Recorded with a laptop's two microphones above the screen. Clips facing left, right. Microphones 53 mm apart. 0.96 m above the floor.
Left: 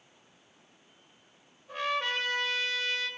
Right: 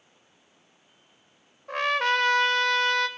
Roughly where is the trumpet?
Right.